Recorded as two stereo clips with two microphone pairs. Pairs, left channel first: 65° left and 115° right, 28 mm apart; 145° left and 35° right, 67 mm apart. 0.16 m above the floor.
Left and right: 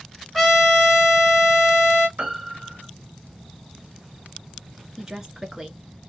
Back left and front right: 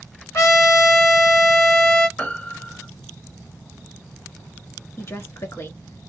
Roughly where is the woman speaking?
Behind.